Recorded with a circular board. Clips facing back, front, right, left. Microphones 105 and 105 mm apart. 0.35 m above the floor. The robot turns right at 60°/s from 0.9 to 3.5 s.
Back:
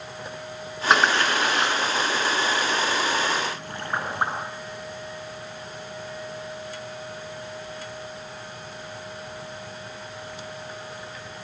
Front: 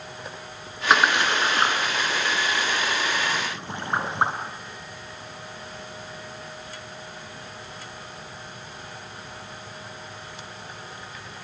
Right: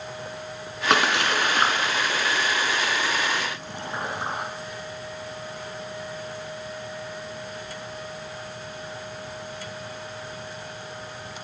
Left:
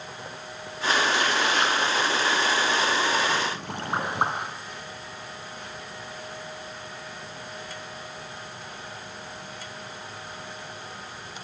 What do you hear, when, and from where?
0.9 s a splash: 90° right, 5 m; by 4.3 s 65° left, 5 m